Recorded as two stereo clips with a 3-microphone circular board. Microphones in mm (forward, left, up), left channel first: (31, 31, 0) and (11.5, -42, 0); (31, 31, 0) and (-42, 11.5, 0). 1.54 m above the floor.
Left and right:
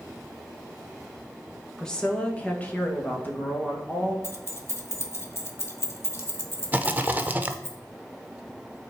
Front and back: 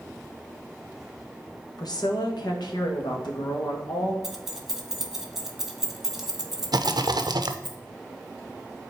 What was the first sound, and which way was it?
A woman speaking, 5° right.